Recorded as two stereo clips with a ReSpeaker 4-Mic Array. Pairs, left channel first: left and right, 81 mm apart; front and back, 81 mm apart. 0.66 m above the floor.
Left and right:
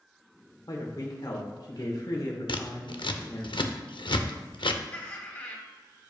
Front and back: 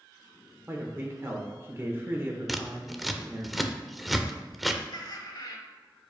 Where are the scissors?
90° left, 0.6 m.